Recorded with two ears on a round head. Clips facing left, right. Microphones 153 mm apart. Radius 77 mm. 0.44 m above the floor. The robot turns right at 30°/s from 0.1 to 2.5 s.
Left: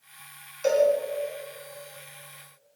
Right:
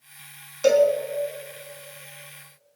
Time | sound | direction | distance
0.6 | a cowbell | 60° right (ahead or behind) | 3.5 m